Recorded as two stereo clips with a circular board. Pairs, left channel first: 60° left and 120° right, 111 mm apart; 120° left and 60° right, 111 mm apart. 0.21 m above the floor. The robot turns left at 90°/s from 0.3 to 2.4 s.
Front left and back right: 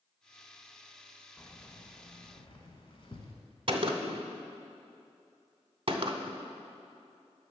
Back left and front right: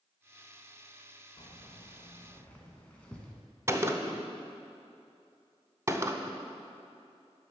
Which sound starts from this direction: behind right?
A gunshot, at 3.7 s.